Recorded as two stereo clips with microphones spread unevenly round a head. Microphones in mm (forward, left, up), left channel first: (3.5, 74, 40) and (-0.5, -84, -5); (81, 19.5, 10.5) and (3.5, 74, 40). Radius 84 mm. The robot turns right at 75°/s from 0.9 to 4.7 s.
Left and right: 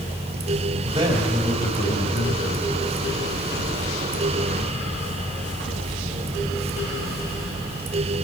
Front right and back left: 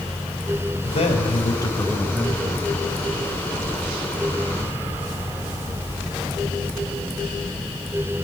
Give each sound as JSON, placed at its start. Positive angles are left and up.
{"t": 0.8, "sound": "a man speaking", "azimuth_deg": -35, "distance_m": 6.0}